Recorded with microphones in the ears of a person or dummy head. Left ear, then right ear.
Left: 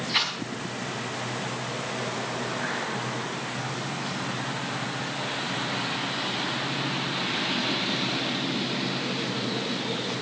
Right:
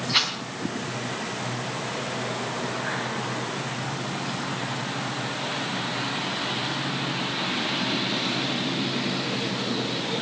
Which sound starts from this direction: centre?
A rattle, at 0.1 s.